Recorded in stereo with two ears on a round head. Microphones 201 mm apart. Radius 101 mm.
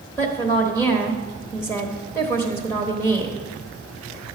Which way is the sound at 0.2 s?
10° left (ahead or behind).